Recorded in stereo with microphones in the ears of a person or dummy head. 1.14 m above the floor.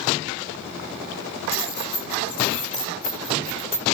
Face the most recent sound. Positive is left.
turn(degrees=70)  # may be behind; listen again after turning